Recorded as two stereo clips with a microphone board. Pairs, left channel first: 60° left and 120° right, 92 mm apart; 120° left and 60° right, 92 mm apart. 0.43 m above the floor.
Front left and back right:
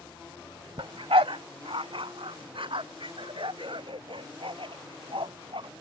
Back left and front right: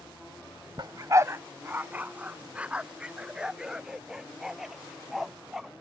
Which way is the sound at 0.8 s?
100° right.